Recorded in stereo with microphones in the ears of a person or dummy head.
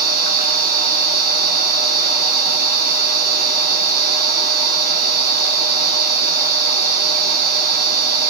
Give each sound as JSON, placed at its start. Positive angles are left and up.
{"t": 0.0, "sound": "a machine running", "side_deg": -50, "distance_m": 3.5}